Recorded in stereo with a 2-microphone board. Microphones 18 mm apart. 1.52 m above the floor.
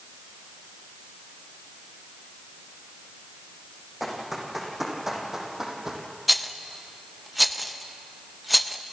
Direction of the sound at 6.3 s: Centre (ahead or behind).